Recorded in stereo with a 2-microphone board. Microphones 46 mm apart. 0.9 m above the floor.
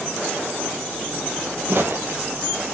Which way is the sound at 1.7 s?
55° right (ahead or behind).